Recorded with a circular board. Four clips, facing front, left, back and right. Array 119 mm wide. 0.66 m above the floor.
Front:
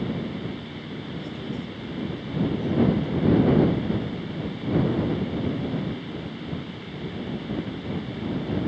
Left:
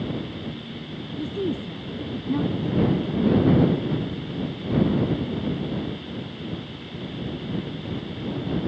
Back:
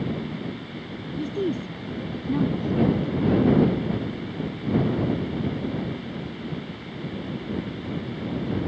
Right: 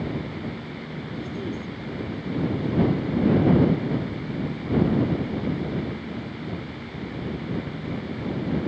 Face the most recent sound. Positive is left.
turn(degrees=125)